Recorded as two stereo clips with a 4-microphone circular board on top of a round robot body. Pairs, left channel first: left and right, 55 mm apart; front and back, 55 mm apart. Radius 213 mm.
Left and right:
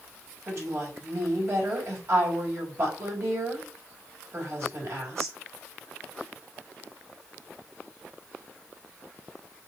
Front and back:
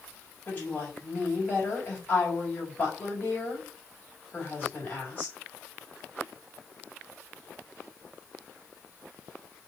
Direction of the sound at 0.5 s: 55° right.